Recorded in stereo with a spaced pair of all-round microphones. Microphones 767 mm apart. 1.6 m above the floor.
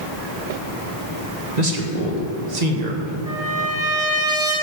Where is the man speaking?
60° right (ahead or behind), 1.6 m.